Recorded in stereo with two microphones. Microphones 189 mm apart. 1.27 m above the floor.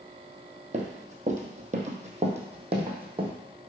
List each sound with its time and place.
0.7 s running footsteps: 40° right (ahead or behind), 1.7 m; by 3.3 s 25° right (ahead or behind), 2.5 m